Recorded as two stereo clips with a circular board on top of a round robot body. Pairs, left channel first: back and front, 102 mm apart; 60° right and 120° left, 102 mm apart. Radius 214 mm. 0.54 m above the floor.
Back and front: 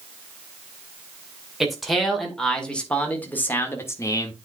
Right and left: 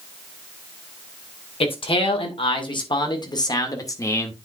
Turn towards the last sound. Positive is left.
turn(degrees=-125)